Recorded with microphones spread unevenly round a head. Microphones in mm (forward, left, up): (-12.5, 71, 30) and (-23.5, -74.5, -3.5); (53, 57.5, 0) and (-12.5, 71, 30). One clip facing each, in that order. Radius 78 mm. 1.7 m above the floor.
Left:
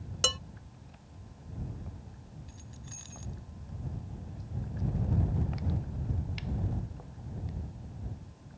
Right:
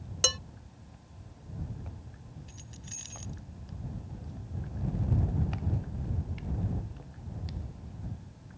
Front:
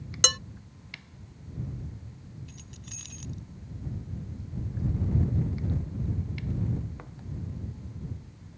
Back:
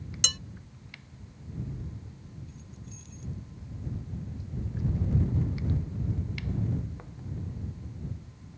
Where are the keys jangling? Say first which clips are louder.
Even, back 1 dB; 25° right.